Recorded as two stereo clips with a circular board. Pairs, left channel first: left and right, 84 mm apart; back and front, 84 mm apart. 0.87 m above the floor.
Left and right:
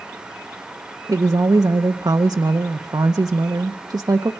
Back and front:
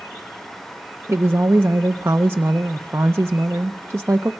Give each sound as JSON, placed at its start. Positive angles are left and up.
{"t": 1.1, "sound": "a woman speaking", "azimuth_deg": -60, "distance_m": 0.6}